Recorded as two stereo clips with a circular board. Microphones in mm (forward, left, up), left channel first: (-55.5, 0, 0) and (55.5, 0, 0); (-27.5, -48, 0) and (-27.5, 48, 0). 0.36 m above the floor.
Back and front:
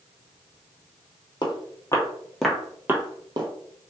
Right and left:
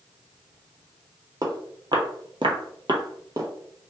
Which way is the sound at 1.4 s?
135° left.